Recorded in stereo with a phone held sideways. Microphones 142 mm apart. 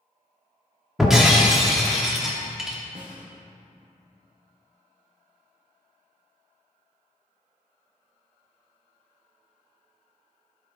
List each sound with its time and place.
1.0 s breaking glass: 5° right (ahead or behind), 1.2 m
3.0 s a snare drum: 70° right (ahead or behind), 1.3 m